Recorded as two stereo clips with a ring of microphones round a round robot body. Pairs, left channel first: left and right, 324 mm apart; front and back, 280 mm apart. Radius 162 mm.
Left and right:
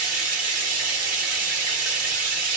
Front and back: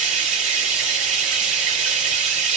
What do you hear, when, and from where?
0.0 s running water: 120° right, 1.6 m